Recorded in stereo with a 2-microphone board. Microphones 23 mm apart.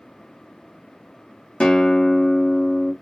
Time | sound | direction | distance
1.6 | a guitar | 35° left (ahead or behind) | 0.9 m